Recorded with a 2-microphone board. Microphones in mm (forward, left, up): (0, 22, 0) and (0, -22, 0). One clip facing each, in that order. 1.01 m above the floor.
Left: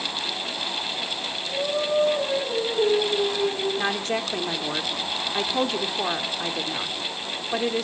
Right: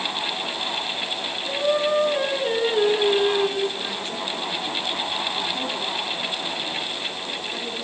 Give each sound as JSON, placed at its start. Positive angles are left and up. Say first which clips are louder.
{"t": 1.5, "sound": "singing", "louder": "right 4 dB", "side_deg": -80, "distance_m": 9.0}
{"t": 3.8, "sound": "a woman speaking", "louder": "left 4 dB", "side_deg": 65, "distance_m": 2.5}